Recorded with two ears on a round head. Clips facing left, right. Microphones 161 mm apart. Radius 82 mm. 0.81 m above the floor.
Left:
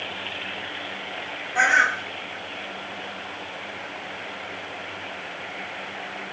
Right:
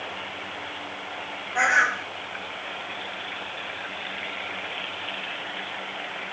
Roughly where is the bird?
Centre.